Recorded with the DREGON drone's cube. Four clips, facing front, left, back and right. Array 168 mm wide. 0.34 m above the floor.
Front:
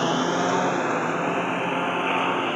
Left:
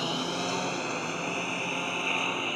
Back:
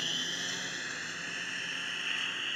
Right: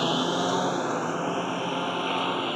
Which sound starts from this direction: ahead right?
A lawn mower, at 0.0 s.